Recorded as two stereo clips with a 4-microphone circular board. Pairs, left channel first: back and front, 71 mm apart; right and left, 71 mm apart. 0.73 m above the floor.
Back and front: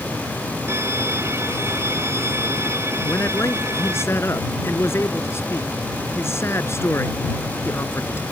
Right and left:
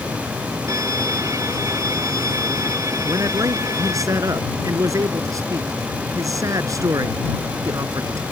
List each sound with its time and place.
0.7 s a violin: 50° left
3.0 s a man speaking: 130° left